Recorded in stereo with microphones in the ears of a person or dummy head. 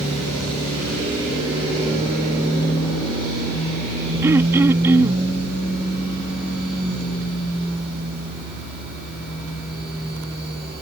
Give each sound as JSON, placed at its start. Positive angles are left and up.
{"t": 4.2, "sound": "throat clearing", "side_deg": -15}